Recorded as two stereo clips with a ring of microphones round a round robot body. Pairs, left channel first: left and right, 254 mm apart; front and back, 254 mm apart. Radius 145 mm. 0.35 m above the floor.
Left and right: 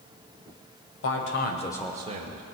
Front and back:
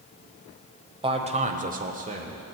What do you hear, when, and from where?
1.0 s a man speaking: 115° left, 1.6 m; by 2.4 s 115° right, 1.2 m